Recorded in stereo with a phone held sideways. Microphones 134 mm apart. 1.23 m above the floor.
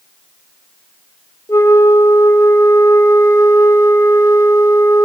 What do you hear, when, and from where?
1.5 s a flute: 25° left (ahead or behind), 1.3 m